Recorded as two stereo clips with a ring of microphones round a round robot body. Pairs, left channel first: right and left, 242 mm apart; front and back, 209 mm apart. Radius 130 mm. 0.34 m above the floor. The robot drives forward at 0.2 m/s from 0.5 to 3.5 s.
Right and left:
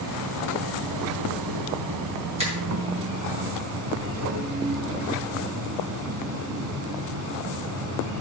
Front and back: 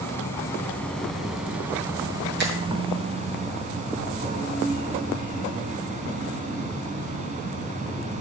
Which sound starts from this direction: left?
An insect, at 0.0 s.